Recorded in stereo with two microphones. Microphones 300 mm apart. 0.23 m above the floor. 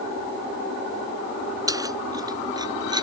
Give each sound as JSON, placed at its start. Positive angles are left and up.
{"t": 1.7, "sound": "keys jangling", "side_deg": -10}